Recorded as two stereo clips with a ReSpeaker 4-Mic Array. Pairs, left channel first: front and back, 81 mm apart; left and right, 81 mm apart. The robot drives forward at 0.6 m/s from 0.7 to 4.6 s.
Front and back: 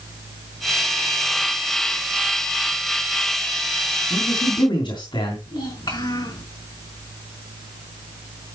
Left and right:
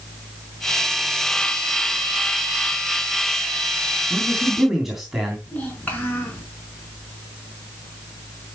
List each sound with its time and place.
4.1 s a man speaking: 5° right, 3.5 m
5.5 s a child speaking: 20° left, 4 m